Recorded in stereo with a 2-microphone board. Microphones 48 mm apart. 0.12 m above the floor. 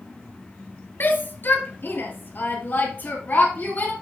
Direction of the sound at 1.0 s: 45° left (ahead or behind).